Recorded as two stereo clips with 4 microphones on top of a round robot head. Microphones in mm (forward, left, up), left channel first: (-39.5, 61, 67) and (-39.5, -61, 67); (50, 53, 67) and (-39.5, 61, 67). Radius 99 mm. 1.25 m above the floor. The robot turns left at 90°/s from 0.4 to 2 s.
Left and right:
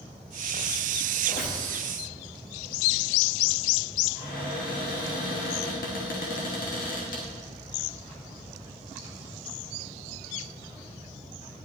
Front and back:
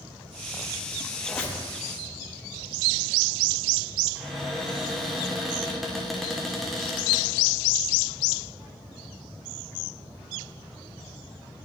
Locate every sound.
1.2 s a squeak: 85° left, 0.9 m; by 1.6 s 50° left, 0.9 m
4.2 s a cupboard door: 85° left, 1.2 m